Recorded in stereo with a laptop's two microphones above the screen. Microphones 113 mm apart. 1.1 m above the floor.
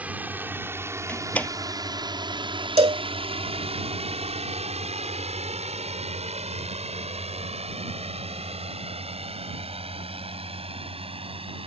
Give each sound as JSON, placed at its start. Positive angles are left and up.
{"t": 0.0, "sound": "a drone", "side_deg": -15}
{"t": 1.1, "sound": "a door slam", "side_deg": 15}
{"t": 2.8, "sound": "a cowbell", "side_deg": -60}